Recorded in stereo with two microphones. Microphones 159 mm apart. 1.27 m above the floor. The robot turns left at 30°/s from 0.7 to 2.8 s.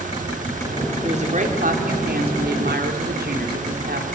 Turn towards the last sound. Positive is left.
turn(degrees=-95)